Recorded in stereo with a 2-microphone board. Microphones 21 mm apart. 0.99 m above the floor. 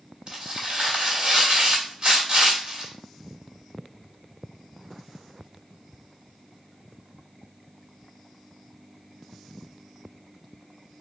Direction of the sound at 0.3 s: 40° right (ahead or behind).